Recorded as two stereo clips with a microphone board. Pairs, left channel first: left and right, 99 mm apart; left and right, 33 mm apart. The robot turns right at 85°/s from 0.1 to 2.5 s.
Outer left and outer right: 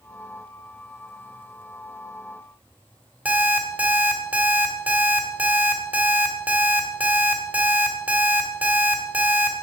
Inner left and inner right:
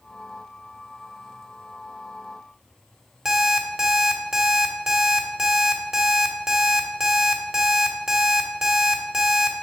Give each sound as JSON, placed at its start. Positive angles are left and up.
{"t": 3.2, "sound": "an alarm clock", "side_deg": -15, "distance_m": 1.3}